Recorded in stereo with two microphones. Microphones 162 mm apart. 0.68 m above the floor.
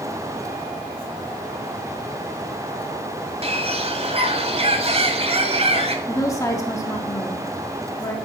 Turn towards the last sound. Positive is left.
turn(degrees=20)  # may be behind; listen again after turning